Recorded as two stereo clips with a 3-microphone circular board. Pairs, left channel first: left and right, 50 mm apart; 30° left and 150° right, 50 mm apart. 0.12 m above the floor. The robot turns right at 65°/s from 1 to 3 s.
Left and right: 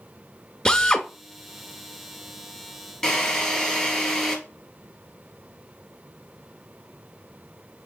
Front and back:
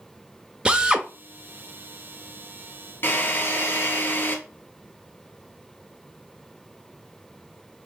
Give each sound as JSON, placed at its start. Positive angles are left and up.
{"t": 0.7, "sound": "a drill", "azimuth_deg": 150, "distance_m": 0.6}
{"t": 3.0, "sound": "a drill", "azimuth_deg": 20, "distance_m": 1.4}